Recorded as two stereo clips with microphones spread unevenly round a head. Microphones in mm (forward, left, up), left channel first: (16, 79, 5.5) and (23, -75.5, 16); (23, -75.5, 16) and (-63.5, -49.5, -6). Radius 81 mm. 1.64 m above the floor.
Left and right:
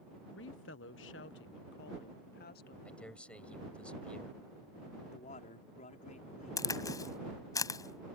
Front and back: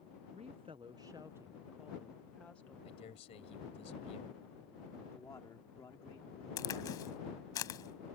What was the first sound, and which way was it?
A woman speaking, 115° left.